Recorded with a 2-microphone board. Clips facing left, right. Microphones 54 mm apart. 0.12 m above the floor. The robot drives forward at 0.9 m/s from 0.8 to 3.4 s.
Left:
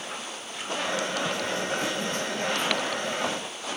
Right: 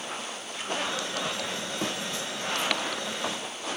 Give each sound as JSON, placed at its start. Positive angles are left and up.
{"t": 1.8, "sound": "a thud", "side_deg": -45, "distance_m": 2.5}